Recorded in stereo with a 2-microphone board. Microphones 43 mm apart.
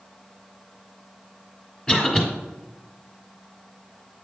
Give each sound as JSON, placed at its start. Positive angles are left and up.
{"t": 1.9, "sound": "a cough", "side_deg": 20, "distance_m": 1.5}